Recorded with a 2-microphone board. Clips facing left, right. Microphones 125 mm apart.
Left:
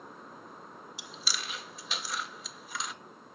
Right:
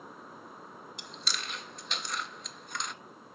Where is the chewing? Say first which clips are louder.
Even; 5° left (ahead or behind), 0.6 m.